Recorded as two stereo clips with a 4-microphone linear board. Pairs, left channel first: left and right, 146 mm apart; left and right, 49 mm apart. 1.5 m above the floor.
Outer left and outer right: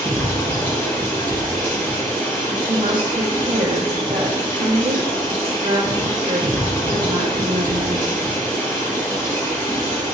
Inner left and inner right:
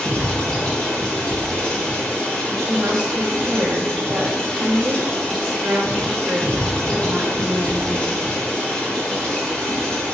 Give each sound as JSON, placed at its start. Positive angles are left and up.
{"t": 0.0, "sound": "running water", "side_deg": 20, "distance_m": 3.0}
{"t": 2.5, "sound": "a woman speaking", "side_deg": -80, "distance_m": 1.9}